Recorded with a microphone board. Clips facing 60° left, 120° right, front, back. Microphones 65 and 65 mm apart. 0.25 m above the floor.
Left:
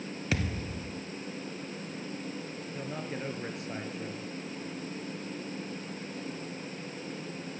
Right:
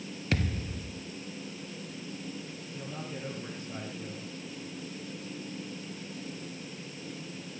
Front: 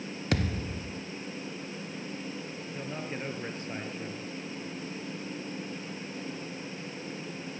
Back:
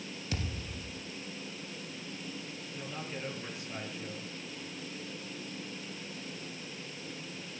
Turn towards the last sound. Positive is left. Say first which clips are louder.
# left 3 dB, front 4 dB
turn(degrees=50)